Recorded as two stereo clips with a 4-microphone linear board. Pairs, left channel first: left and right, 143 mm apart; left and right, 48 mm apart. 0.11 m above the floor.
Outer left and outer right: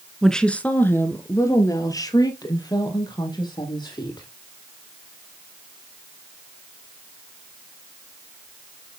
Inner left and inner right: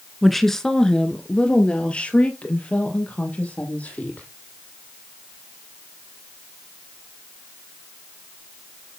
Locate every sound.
0.2 s a woman speaking: centre (ahead or behind), 1.1 m; by 4.3 s 30° left (ahead or behind), 3.5 m